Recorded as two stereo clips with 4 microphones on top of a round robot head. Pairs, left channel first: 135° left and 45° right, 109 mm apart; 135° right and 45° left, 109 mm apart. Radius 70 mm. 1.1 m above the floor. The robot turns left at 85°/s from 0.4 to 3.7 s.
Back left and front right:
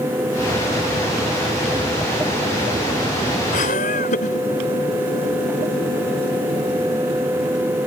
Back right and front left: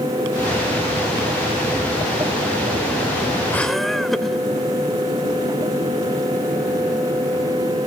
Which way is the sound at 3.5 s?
150° left.